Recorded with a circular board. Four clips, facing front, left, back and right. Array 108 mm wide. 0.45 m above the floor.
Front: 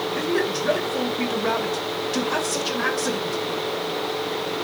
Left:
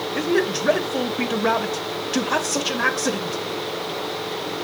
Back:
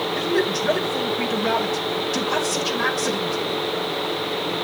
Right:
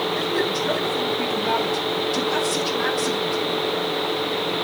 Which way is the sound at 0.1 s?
90° left.